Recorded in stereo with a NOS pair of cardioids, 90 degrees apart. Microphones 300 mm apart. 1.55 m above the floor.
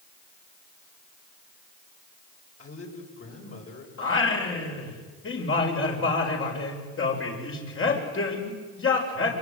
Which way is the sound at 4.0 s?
40° left.